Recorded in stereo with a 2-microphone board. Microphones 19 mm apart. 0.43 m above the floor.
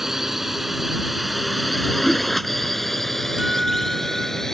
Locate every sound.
0.0 s a drone: 20° right (ahead or behind); by 4.5 s 20° left (ahead or behind)
2.0 s a whoosh: 70° left (ahead or behind)
3.4 s a guitar: 45° right (ahead or behind)